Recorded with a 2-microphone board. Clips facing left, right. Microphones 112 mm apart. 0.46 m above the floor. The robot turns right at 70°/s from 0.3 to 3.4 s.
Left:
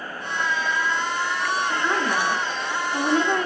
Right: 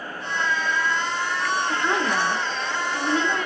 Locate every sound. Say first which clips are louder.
1.7 s a woman speaking: even; 30° right, 0.9 m; by 3.5 s 90° left, 0.9 m